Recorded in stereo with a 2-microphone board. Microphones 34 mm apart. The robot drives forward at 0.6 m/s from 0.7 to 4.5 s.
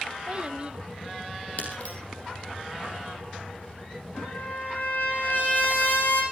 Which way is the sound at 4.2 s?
60° left (ahead or behind).